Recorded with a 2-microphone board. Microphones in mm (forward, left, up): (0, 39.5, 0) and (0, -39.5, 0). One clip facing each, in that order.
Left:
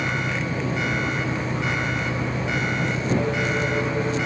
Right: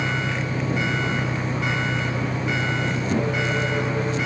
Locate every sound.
0.0 s an engine running: 40° right (ahead or behind)